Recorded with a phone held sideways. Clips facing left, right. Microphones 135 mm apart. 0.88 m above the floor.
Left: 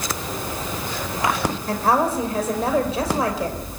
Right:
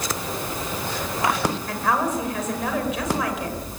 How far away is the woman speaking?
About 4 m.